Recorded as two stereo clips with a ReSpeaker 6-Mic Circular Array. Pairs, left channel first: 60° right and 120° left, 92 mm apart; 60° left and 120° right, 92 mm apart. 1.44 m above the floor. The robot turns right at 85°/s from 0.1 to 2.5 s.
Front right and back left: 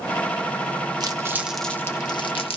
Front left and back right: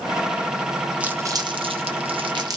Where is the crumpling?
160° left, 0.7 m; by 2.6 s 70° right, 0.7 m.